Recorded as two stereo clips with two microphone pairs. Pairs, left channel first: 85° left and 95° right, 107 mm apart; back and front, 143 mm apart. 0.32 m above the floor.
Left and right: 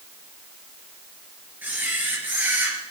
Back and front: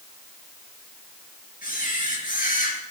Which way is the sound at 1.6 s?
170° right.